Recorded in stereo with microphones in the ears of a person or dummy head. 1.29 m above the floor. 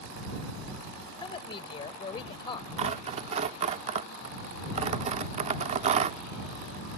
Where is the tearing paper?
35° right (ahead or behind).